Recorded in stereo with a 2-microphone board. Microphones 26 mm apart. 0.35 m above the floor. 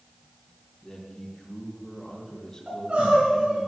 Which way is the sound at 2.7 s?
55° right (ahead or behind).